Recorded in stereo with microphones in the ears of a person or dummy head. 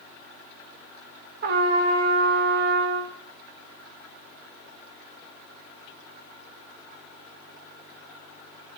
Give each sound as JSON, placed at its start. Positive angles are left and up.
{"t": 1.4, "sound": "a trumpet", "side_deg": -45, "distance_m": 0.9}